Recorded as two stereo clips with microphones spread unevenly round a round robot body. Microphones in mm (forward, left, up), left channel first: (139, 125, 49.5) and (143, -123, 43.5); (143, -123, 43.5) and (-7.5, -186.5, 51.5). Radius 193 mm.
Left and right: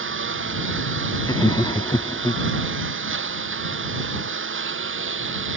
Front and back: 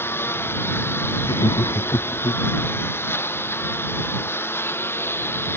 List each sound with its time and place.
0.0 s a lawn mower: 55° right
1.2 s laughter: 35° left